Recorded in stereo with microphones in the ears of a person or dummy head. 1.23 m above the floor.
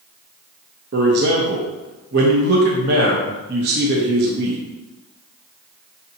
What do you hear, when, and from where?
0.9 s a man speaking: 50° right (ahead or behind), 0.6 m